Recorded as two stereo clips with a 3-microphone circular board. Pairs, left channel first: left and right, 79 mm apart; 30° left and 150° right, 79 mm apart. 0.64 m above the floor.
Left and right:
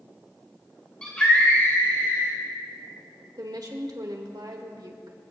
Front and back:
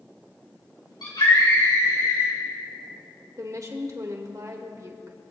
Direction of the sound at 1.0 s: 15° left.